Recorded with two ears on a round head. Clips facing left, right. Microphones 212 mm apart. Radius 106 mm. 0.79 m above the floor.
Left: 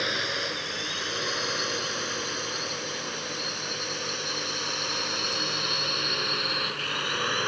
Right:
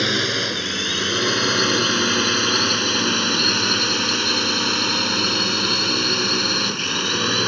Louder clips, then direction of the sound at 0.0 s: Right 9 dB; 70° right (ahead or behind).